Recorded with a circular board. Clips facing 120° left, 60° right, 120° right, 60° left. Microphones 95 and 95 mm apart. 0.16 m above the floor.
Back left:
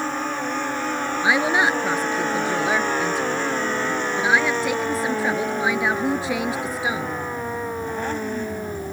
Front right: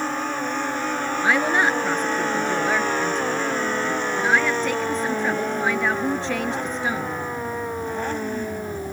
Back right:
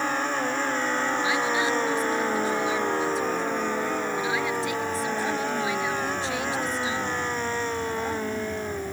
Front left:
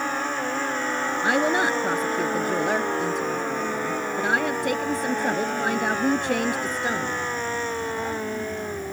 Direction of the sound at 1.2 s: 40° left.